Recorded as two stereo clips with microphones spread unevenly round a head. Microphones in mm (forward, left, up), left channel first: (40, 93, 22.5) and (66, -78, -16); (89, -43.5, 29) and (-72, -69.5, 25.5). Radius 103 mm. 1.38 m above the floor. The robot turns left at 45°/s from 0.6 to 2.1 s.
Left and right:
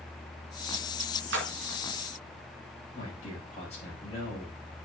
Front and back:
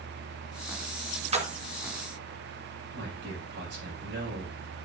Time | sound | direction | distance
1.3 | a splash | 120° right | 1.7 m
2.9 | a man speaking | 160° left | 6 m